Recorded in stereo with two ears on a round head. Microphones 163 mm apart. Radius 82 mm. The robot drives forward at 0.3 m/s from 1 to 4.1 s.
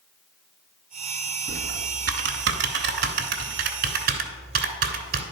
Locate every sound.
1.5 s typing on a keyboard: 60° right (ahead or behind), 1.1 m; by 5.2 s 55° right (ahead or behind), 1.2 m